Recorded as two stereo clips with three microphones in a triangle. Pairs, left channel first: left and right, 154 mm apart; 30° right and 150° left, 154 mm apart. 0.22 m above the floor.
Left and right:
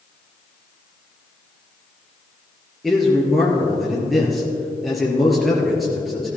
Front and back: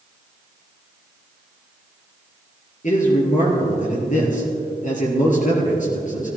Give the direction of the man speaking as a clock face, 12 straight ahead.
12 o'clock.